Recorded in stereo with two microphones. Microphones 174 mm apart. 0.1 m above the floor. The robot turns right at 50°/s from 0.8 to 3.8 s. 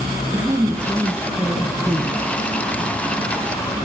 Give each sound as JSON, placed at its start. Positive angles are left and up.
{"t": 0.3, "sound": "a woman speaking", "side_deg": -15, "distance_m": 1.4}